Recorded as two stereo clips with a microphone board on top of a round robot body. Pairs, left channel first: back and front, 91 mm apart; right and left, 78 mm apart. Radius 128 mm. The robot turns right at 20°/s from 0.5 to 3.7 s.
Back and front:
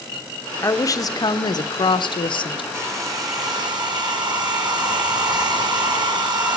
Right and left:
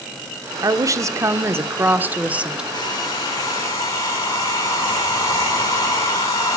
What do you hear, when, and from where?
0.6 s a woman speaking: 125° left, 0.8 m; by 2.6 s 165° left, 0.8 m
2.7 s a hair dryer: 60° right, 2.5 m; by 6.6 s 40° right, 2.5 m